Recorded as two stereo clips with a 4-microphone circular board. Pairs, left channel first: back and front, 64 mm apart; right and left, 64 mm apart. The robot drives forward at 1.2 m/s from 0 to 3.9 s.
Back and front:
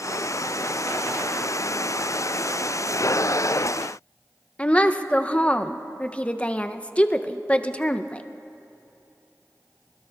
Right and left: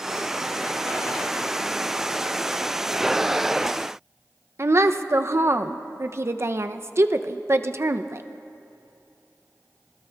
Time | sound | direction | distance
4.6 | a woman speaking | 115° left | 0.5 m